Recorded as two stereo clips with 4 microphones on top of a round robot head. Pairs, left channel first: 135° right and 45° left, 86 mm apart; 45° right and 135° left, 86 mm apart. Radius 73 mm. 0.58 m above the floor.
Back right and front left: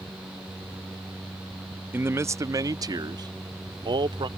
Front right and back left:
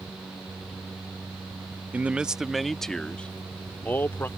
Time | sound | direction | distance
1.9 | a man speaking | 80° left | ?